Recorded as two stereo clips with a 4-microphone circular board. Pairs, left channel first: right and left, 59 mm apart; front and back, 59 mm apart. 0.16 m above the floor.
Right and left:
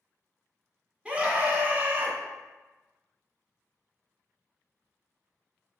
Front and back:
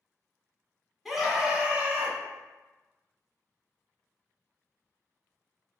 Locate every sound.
1.1 s a scream: 95° left, 1.0 m; by 2.2 s 135° left, 1.4 m